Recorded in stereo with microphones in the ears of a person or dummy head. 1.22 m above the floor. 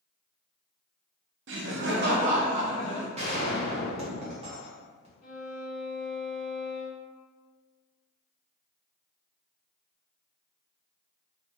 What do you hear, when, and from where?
1.5 s laughter: 60° right (ahead or behind), 0.7 m; by 3.1 s 15° right (ahead or behind), 1.0 m
3.2 s a gunshot: 40° right (ahead or behind), 0.8 m
5.2 s a violin: 45° left (ahead or behind), 1.4 m